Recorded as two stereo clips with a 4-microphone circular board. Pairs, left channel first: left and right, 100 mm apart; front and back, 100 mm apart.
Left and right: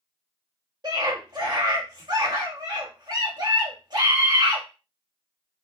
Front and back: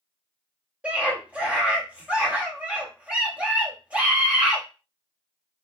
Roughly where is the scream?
Right.